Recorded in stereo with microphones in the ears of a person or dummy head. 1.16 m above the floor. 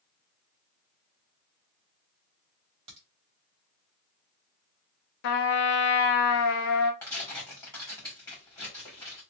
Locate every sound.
2.9 s a crack: 30° right (ahead or behind), 1.2 m
5.2 s a trumpet: 55° left (ahead or behind), 0.7 m
7.0 s tearing paper: 15° left (ahead or behind), 1.7 m